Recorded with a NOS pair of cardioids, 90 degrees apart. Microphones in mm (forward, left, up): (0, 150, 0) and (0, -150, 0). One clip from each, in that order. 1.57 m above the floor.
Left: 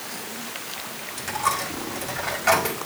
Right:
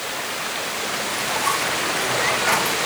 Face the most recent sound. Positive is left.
turn(degrees=55)